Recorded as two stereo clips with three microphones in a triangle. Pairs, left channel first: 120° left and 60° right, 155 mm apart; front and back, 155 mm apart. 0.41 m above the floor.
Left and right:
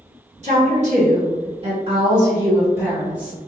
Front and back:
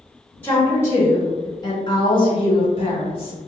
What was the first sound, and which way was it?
A woman speaking, 75° right.